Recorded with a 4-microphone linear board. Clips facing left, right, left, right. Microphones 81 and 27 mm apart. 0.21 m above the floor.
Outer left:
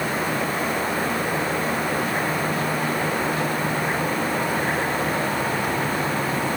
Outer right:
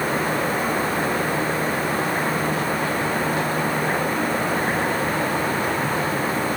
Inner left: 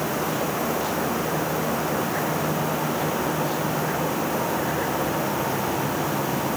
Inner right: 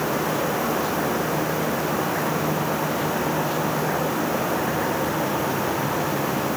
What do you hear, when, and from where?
Only background noise.